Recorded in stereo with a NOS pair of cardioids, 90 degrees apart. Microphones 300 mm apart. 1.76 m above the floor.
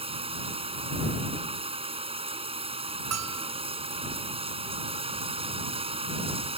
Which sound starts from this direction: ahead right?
A bell, at 3.1 s.